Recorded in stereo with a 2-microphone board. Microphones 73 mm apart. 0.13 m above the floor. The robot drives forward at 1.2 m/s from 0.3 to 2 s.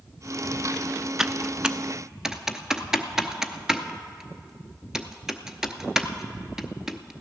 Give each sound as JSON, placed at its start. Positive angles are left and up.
{"t": 1.2, "sound": "typing on a keyboard", "side_deg": -10, "distance_m": 0.5}